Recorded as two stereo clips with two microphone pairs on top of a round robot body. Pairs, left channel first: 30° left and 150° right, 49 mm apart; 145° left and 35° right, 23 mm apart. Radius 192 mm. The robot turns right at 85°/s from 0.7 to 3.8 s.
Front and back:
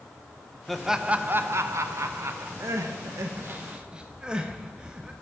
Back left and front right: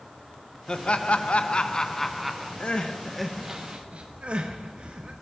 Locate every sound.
0.7 s laughter: 105° left, 0.7 m; by 2.5 s 105° right, 0.7 m
2.6 s crying: 175° right, 0.5 m; by 5.1 s 75° right, 0.5 m